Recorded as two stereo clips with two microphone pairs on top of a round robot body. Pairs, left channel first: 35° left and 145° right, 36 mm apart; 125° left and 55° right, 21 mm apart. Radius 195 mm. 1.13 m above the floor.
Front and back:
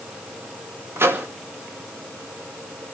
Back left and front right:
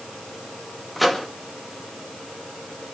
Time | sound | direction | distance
1.0 | a microwave | 140° right | 2.5 m